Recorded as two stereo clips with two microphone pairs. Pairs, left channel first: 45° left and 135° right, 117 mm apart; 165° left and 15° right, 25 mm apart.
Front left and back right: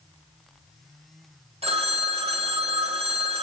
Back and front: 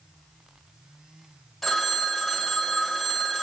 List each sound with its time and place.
1.6 s a phone ringing: 110° right, 1.5 m